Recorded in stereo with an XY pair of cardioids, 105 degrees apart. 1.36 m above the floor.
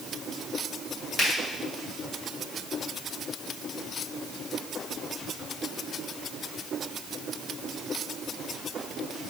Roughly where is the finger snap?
Ahead left.